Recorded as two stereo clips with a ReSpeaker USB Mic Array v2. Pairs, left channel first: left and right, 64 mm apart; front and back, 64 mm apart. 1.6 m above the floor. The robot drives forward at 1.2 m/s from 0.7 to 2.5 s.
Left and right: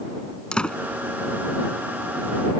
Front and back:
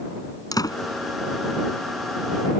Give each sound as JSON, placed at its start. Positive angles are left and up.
{"t": 0.5, "sound": "a door slam", "azimuth_deg": 15}